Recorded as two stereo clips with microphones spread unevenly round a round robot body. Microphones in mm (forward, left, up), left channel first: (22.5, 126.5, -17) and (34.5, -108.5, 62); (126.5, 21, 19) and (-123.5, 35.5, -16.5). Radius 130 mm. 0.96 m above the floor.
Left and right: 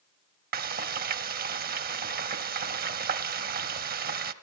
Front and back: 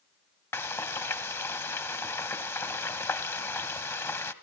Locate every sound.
0.5 s frying: 75° right, 1.1 m